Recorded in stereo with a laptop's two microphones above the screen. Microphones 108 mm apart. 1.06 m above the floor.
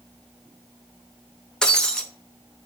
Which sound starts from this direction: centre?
Breaking glass, at 1.6 s.